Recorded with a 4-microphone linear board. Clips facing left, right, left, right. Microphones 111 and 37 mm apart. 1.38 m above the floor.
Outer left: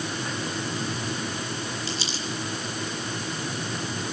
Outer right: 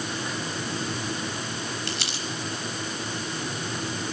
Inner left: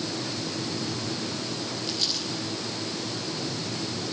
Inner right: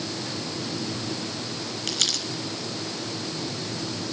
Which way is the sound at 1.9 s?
65° right (ahead or behind).